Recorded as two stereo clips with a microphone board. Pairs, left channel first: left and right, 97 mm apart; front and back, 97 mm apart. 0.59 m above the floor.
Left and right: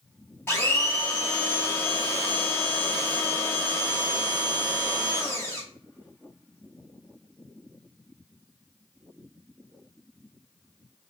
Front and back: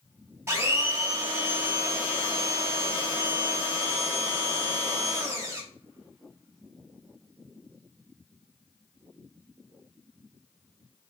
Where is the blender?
135° left, 0.8 m.